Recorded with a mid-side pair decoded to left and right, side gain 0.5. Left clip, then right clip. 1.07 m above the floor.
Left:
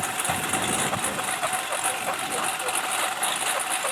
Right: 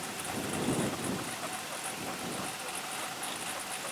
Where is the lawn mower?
65° left.